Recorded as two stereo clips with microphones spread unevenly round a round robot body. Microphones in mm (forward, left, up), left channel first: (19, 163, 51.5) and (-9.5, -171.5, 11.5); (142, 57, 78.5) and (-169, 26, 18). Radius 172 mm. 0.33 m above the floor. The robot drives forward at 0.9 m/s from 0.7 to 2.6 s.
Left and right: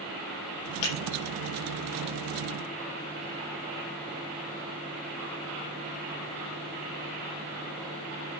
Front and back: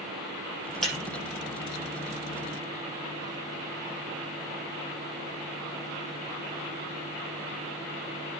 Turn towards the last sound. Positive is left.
turn(degrees=105)